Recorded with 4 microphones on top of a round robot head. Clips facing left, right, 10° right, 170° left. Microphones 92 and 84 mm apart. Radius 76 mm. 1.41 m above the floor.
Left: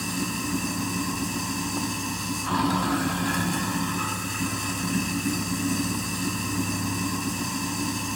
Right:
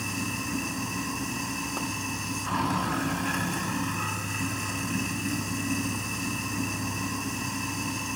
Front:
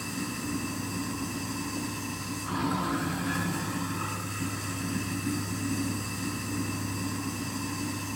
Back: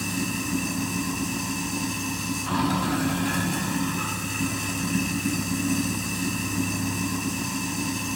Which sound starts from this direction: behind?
Running water, at 0.0 s.